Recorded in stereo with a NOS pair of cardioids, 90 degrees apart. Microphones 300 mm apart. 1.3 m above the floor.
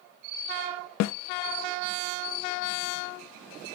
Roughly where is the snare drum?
Ahead left.